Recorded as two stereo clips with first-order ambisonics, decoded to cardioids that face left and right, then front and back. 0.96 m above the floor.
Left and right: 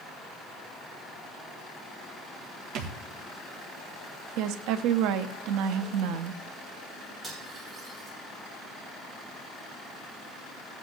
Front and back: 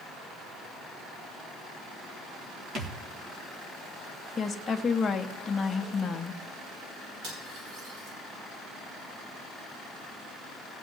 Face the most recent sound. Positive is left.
turn(degrees=-155)